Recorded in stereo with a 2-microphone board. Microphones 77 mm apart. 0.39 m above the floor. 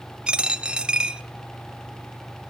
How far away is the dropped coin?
About 0.6 m.